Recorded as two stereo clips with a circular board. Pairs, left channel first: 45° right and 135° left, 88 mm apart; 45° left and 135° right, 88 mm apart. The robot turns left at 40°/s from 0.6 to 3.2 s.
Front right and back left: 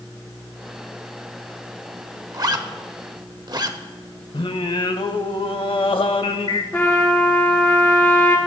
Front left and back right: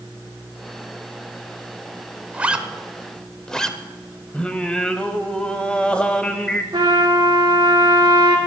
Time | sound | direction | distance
2.3 | a zipper | 160° left | 0.7 m
4.3 | singing | 30° right | 0.6 m
6.7 | a trumpet | 110° right | 3.5 m